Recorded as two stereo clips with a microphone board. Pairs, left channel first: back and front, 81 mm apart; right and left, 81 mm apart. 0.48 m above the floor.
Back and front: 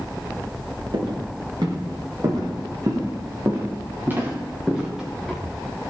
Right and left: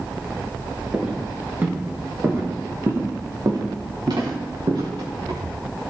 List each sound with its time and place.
0.9 s footsteps: 15° left, 5 m; by 5.4 s 90° left, 3.5 m